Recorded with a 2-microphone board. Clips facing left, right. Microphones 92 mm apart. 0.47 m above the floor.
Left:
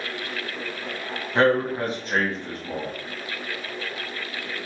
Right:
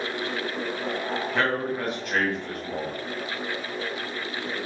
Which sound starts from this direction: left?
A man speaking, at 1.4 s.